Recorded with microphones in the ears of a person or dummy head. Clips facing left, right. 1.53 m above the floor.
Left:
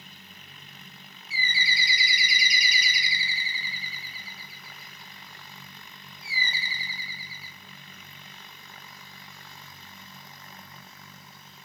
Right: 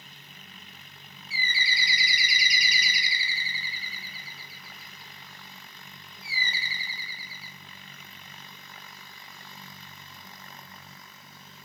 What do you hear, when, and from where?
1.3 s a bird: 75° left (ahead or behind), 0.9 m